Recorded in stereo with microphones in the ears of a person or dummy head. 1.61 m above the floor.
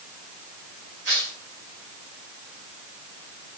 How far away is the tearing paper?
About 3 m.